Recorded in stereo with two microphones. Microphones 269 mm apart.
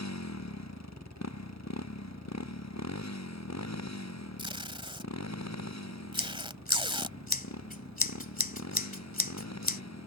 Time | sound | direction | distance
0.0 | a motorcycle | 75° left (ahead or behind) | ?
4.4 | tape being pulled | 20° right (ahead or behind) | ?
6.2 | scissors | 30° left (ahead or behind) | ?